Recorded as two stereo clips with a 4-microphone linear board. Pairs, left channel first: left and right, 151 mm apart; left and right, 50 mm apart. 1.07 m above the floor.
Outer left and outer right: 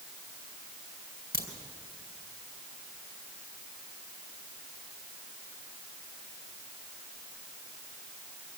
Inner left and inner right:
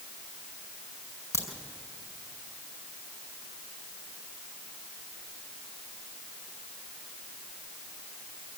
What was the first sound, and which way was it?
A crack, 80° left.